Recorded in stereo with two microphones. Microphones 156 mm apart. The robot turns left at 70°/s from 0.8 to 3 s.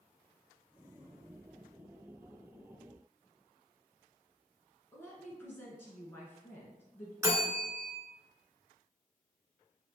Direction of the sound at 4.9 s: 15° left (ahead or behind).